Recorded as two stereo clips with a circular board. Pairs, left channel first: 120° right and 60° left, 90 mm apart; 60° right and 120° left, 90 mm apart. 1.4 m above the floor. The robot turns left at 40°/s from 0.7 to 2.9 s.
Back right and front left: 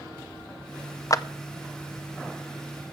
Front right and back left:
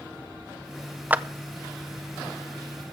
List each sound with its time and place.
1.1 s a clap: 170° right, 0.5 m; by 1.2 s 175° right, 0.5 m